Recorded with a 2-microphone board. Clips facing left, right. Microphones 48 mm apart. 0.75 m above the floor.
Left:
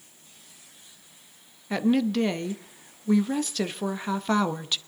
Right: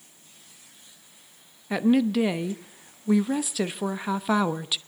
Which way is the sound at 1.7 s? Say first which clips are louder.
Right 2 dB; 5° right (ahead or behind).